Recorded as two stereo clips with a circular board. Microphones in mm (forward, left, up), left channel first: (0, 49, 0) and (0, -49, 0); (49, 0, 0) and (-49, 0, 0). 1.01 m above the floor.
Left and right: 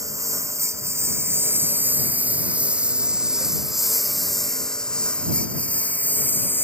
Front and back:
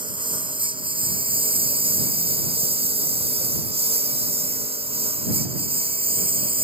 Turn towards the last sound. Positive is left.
turn(degrees=160)